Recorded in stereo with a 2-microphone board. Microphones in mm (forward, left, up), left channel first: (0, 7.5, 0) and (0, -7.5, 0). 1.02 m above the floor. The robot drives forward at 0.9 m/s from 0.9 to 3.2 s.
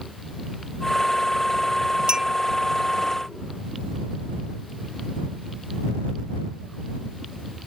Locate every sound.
2.1 s a clink: 60° right (ahead or behind); by 2.3 s 70° right (ahead or behind)